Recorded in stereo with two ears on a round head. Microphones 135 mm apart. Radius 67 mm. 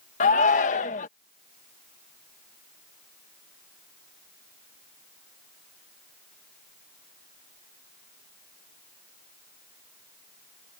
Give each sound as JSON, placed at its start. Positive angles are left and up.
{"t": 0.2, "sound": "a shout", "side_deg": 55}